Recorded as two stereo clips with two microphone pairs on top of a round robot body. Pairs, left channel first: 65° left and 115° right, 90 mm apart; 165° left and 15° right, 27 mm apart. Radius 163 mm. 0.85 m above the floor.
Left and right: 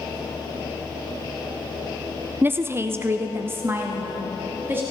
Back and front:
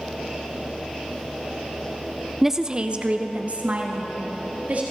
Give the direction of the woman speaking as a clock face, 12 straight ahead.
3 o'clock.